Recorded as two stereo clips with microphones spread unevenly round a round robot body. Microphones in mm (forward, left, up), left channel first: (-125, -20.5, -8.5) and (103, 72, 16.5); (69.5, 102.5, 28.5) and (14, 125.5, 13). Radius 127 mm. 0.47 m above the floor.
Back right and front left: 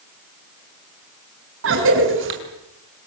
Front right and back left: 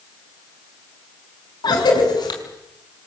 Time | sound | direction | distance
1.6 | a cough | 25° right | 5.5 m